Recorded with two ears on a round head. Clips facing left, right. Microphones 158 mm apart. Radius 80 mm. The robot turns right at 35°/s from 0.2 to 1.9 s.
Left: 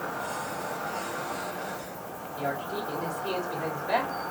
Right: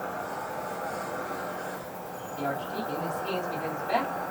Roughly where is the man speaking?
Centre.